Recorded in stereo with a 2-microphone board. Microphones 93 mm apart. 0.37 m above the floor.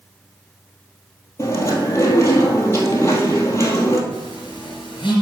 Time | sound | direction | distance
1.4 | chewing | 35° left (ahead or behind) | 1.5 m
4.1 | a phone buzzing | 55° left (ahead or behind) | 3.5 m